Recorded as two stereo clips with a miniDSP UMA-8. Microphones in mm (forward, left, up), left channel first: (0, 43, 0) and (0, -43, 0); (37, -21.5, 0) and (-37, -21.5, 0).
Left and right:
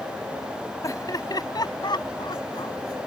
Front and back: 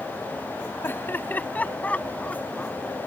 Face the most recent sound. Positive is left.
turn(degrees=75)